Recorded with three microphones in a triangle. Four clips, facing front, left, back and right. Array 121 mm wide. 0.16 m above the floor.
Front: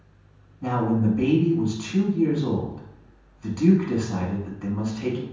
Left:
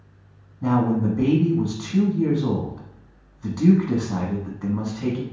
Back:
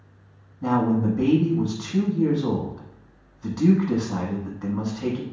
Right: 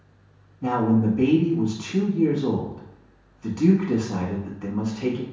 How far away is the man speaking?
About 1.1 m.